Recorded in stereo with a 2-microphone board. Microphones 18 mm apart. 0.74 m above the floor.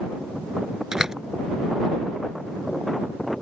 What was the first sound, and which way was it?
A door slam, 35° right (ahead or behind).